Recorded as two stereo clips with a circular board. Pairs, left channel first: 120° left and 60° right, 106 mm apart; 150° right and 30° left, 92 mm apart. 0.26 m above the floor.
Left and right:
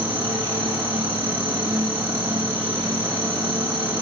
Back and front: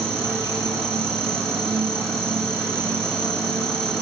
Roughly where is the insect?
Ahead right.